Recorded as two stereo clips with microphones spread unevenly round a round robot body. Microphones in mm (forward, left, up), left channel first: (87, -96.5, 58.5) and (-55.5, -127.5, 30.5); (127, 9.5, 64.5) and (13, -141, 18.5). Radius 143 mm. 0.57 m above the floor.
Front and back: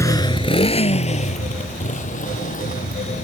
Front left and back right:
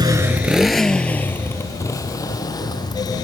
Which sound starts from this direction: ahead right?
A motorcycle, at 0.0 s.